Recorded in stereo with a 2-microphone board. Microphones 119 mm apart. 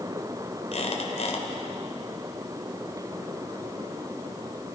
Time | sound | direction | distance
0.7 | a squeak | 65° left (ahead or behind) | 2.5 m